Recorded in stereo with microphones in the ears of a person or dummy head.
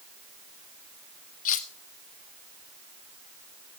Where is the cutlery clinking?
40° left (ahead or behind), 1.2 m.